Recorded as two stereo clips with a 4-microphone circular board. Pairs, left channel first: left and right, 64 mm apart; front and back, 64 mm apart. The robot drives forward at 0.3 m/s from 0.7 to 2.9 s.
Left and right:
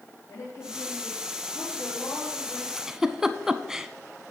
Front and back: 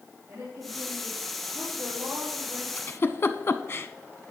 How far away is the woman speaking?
About 4.5 m.